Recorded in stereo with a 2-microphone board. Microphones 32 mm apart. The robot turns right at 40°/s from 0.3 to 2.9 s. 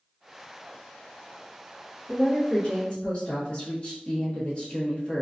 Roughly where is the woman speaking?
Left.